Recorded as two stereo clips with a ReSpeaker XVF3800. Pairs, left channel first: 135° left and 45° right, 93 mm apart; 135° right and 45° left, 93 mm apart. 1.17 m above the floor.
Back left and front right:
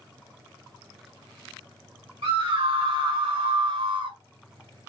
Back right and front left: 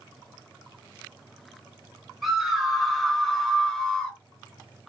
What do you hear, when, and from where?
2.2 s a scream: 45° right, 2.5 m; by 4.2 s 55° right, 1.5 m